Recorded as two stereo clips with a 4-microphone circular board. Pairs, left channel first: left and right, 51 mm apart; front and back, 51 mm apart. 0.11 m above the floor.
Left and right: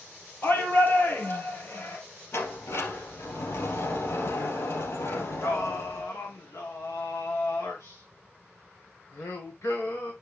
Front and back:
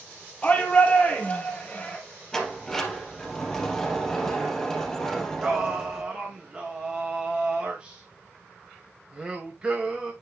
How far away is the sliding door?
About 3 m.